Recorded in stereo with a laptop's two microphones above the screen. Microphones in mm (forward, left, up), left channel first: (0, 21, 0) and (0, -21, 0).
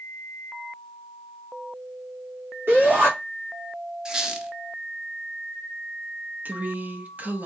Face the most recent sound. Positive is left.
turn(degrees=-40)  # may be behind; listen again after turning